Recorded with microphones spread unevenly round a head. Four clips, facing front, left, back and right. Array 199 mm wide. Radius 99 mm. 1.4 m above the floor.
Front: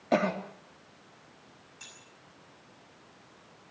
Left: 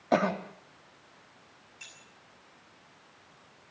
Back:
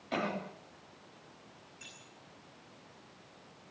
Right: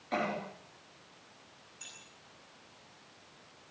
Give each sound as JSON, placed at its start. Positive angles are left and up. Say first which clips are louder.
{"t": 0.1, "sound": "a cough", "louder": "left 8 dB, front 8 dB", "azimuth_deg": 40, "distance_m": 3.5}
{"t": 1.8, "sound": "keys jangling", "louder": "left 1 dB, front 2 dB", "azimuth_deg": 0, "distance_m": 9.5}